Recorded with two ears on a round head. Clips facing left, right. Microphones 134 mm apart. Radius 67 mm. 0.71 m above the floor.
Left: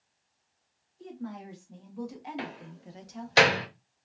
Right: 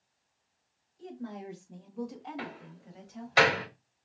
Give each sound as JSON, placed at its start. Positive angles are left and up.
{"t": 1.0, "sound": "a woman speaking", "side_deg": -40, "distance_m": 0.9}
{"t": 2.4, "sound": "a door slam", "side_deg": 30, "distance_m": 1.1}